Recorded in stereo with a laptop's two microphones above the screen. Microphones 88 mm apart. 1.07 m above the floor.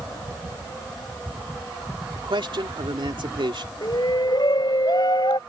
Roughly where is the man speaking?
Right.